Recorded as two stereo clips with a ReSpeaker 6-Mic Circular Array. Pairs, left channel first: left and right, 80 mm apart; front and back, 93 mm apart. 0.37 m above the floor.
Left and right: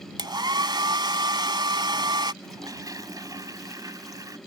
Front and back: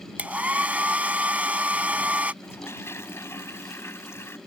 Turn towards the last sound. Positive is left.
turn(degrees=-60)